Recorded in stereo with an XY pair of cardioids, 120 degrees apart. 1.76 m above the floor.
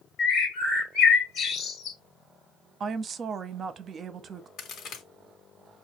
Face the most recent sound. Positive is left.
turn(degrees=65)